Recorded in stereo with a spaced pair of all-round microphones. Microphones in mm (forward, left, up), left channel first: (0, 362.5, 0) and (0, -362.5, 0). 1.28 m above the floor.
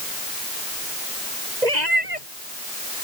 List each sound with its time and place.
1.6 s a cat meowing: 70° right (ahead or behind)